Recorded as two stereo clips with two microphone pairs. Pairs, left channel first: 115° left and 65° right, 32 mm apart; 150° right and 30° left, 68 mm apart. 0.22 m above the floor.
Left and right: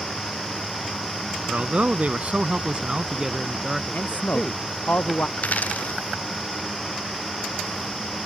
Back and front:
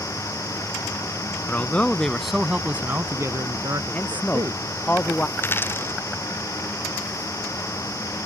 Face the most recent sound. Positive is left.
turn(degrees=155)